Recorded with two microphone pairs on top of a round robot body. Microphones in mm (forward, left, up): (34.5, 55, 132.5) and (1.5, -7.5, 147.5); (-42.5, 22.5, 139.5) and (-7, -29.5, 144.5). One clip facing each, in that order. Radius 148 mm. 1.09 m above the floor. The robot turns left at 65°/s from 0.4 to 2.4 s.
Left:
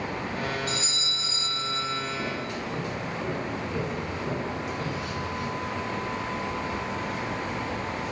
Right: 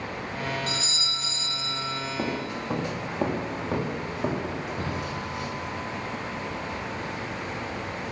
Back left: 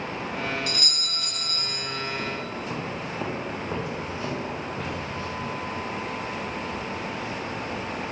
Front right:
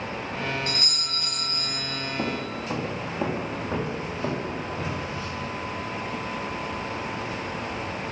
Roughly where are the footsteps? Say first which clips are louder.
Right 2 dB, front right 2 dB; right.